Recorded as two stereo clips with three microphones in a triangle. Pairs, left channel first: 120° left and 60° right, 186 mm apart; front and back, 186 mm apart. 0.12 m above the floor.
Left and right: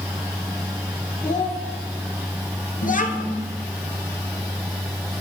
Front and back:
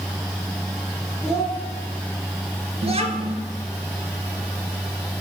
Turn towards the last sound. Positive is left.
turn(degrees=135)